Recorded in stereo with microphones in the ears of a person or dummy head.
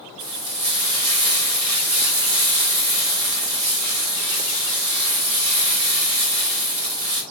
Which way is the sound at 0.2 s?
85° right.